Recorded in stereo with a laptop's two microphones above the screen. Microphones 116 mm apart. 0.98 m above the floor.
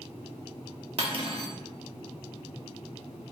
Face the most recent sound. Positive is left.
turn(degrees=-55)  # may be behind; listen again after turning